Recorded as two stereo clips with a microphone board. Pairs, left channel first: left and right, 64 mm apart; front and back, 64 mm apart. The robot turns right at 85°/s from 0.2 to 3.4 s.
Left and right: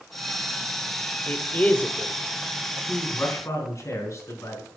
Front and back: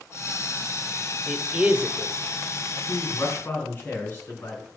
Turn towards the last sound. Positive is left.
turn(degrees=55)